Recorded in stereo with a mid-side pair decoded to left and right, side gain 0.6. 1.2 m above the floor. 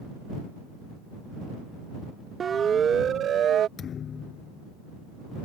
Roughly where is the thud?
Ahead left.